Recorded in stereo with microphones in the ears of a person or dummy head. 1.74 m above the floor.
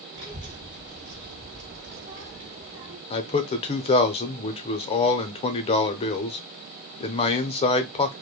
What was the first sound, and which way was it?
A child speaking, 25° right (ahead or behind).